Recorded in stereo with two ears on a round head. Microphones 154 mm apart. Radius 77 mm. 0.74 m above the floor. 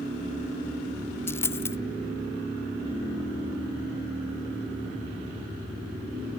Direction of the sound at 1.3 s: 15° left (ahead or behind).